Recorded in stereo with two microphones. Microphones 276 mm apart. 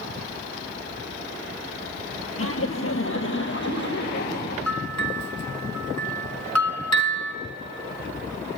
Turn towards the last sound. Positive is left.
turn(degrees=30)  # may be behind; listen again after turning